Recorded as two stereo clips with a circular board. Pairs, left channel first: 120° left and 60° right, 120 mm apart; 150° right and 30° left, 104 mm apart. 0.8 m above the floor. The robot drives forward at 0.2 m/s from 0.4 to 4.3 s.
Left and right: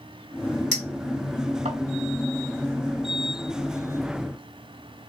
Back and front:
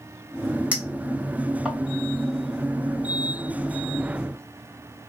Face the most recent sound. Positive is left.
turn(degrees=-75)